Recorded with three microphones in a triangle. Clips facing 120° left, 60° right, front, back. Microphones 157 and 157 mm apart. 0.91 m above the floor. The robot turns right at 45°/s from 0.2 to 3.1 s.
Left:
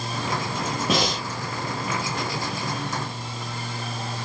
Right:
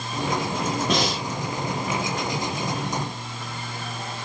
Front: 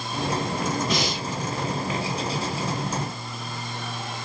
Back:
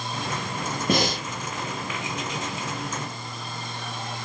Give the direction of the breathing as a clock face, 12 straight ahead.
5 o'clock.